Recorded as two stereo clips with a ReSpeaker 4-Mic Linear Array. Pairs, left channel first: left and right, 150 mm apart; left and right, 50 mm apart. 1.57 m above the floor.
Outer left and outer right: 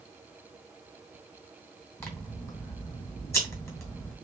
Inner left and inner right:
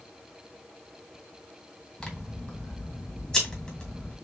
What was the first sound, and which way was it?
Scissors, 20° left (ahead or behind).